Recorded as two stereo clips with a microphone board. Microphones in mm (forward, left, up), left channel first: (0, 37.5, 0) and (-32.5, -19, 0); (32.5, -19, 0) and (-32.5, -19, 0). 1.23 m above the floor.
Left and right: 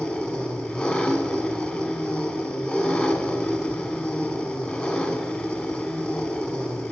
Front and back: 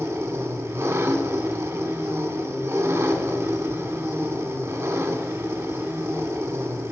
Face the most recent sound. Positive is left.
turn(degrees=125)